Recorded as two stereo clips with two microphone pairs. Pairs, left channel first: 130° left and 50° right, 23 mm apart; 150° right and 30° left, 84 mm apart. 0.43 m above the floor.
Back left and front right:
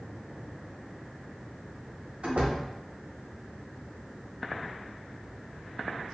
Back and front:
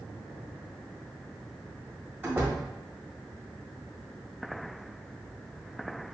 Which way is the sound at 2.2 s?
30° right.